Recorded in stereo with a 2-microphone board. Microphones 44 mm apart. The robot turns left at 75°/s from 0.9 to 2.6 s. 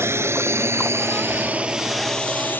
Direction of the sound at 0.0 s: 75° right (ahead or behind).